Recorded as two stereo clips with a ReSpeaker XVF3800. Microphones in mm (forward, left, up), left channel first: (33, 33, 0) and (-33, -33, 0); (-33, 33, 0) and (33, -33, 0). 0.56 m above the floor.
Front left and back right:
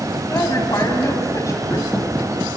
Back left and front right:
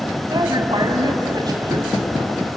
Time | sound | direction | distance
0.3 | a woman speaking | 5° right | 3 m